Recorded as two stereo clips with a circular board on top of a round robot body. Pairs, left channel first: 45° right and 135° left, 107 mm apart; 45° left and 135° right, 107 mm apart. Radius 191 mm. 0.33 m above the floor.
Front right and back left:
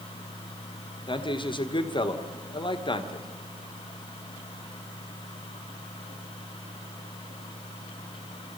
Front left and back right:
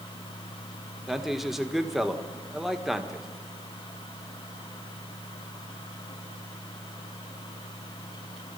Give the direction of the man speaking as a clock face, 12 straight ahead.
2 o'clock.